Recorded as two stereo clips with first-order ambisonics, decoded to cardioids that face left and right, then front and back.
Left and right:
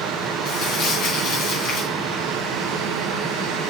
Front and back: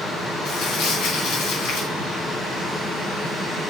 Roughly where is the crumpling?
Ahead left.